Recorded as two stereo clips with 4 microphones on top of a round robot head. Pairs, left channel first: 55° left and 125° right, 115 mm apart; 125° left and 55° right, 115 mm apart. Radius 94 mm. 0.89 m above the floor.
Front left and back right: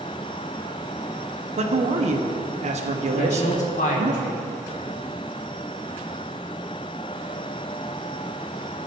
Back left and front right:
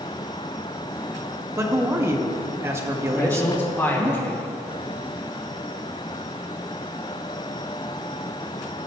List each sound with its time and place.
1.6 s a man speaking: 120° right, 1.5 m
3.1 s a man speaking: 50° left, 2.5 m